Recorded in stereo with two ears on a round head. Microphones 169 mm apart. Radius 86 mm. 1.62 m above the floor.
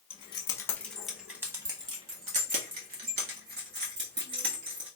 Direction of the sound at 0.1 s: 30° left (ahead or behind).